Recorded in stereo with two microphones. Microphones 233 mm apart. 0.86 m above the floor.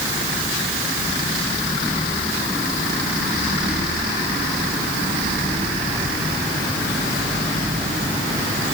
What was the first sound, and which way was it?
Only background noise.